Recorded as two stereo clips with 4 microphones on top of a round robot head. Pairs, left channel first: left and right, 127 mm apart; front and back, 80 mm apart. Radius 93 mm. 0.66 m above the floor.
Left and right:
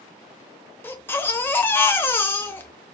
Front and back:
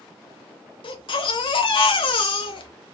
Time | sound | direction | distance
0.8 | a baby crying | 15° left | 0.8 m